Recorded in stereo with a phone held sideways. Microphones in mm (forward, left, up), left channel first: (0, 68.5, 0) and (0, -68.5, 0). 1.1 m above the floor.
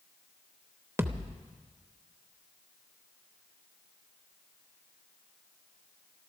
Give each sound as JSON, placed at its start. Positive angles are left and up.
{"t": 1.0, "sound": "a thud", "side_deg": -20, "distance_m": 0.8}